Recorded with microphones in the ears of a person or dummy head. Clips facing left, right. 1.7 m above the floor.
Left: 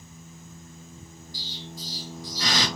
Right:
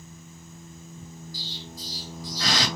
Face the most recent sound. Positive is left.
turn(degrees=20)  # may be behind; listen again after turning